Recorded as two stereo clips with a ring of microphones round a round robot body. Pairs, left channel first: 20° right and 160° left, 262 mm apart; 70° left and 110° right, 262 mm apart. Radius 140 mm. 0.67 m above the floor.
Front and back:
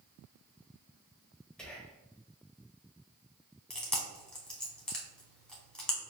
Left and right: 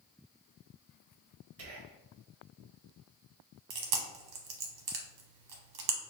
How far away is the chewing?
About 0.9 m.